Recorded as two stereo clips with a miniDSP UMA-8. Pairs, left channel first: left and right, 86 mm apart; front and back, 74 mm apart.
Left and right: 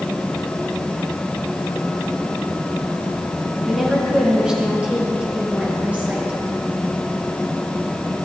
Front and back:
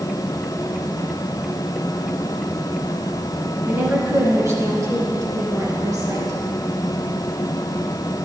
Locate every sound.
3.7 s a woman speaking: 175° right, 1.7 m; by 6.4 s 160° right, 3 m